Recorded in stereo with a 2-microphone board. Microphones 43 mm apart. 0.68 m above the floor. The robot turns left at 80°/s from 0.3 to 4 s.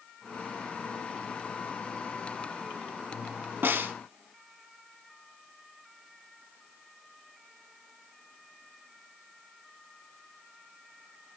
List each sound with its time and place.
3.6 s a snare drum: 65° right (ahead or behind), 1.0 m; by 3.9 s 60° right (ahead or behind), 1.0 m